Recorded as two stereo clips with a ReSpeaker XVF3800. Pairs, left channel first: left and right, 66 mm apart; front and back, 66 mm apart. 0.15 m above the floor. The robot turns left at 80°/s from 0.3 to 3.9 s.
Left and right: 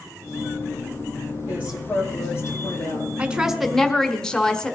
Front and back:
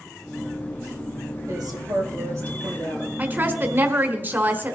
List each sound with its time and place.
1.5 s a woman speaking: 150° right, 6.5 m; by 3.1 s 80° left, 6.5 m
3.2 s a woman speaking: 145° right, 1.2 m; by 4.8 s 155° left, 1.2 m